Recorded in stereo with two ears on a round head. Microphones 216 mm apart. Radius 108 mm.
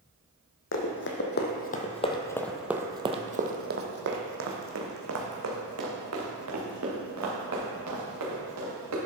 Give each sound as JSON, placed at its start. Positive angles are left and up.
{"t": 0.7, "sound": "running footsteps", "side_deg": 55, "distance_m": 1.6}